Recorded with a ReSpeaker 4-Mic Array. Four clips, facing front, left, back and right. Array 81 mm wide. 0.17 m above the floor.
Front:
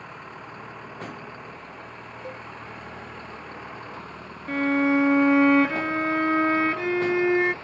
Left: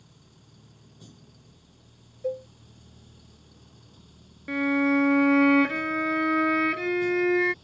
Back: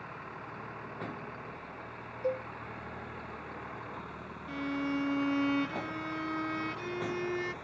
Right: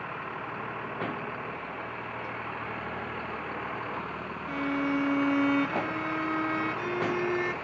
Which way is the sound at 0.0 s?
80° right.